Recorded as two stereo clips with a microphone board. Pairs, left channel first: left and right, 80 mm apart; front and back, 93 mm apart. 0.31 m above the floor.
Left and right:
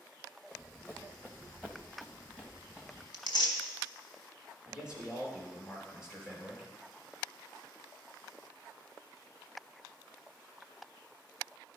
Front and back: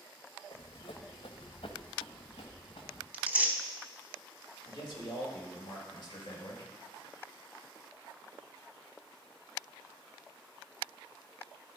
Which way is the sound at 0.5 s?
10° left.